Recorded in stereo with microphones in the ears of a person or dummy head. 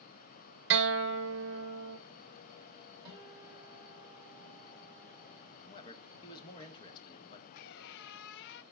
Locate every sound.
0.7 s a guitar: 60° right (ahead or behind), 1.0 m
3.0 s a guitar: 20° right (ahead or behind), 6.5 m
5.7 s a man speaking: 25° left (ahead or behind), 1.7 m
7.5 s a squeak: 55° left (ahead or behind), 0.6 m